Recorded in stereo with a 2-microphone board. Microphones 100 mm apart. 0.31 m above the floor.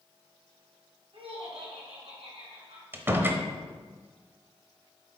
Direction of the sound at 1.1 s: 65° right (ahead or behind).